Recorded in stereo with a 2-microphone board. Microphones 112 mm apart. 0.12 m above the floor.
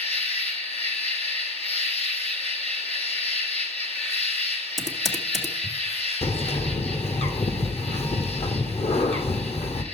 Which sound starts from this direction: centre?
Typing on a keyboard, at 4.8 s.